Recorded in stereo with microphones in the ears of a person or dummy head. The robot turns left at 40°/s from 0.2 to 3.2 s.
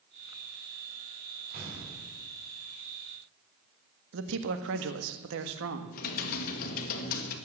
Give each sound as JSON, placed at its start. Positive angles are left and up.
{"t": 1.5, "sound": "an explosion", "side_deg": -45, "distance_m": 5.5}
{"t": 4.1, "sound": "a man speaking", "side_deg": -70, "distance_m": 1.5}
{"t": 5.9, "sound": "typing on a keyboard", "side_deg": 50, "distance_m": 1.8}